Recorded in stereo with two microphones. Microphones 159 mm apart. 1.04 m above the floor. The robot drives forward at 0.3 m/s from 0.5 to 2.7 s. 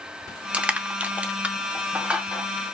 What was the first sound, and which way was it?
Crushing, 10° right (ahead or behind).